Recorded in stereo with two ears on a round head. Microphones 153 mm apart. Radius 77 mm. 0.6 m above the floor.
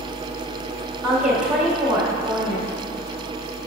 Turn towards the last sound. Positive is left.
turn(degrees=-5)  # may be behind; listen again after turning